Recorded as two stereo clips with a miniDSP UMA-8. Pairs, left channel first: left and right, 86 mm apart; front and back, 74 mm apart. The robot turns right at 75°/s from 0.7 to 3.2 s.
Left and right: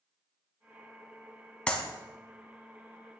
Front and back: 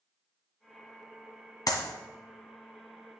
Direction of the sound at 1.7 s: 15° left.